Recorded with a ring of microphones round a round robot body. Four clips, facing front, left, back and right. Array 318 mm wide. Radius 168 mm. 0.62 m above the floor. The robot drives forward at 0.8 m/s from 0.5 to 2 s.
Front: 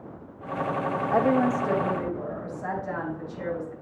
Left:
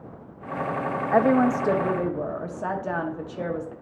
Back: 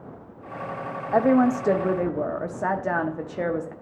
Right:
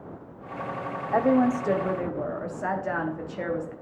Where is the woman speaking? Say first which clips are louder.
Left 2 dB, back 4 dB; 90° left, 0.5 m; by 3.7 s 165° left, 0.9 m.